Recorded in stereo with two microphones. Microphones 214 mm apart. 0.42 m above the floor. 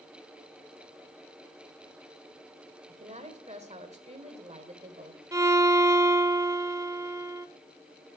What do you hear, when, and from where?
2.9 s a woman speaking: 30° right (ahead or behind), 1.5 m
5.3 s a violin: 15° right (ahead or behind), 0.7 m